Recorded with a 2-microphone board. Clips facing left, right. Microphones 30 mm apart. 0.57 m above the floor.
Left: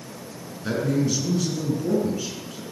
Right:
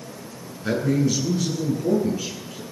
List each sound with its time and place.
0.6 s a man speaking: centre (ahead or behind), 7 m